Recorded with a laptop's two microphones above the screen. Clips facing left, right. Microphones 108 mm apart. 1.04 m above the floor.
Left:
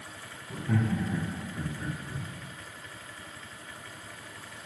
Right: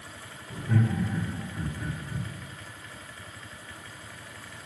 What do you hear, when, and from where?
0.5 s laughter: 50° left (ahead or behind), 0.8 m; by 2.3 s 20° left (ahead or behind), 1.6 m